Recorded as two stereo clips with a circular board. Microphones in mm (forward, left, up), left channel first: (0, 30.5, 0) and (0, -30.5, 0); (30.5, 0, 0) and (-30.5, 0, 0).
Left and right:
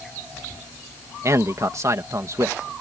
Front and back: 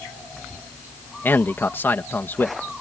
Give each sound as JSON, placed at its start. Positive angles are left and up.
{"t": 1.2, "sound": "a man speaking", "azimuth_deg": -55}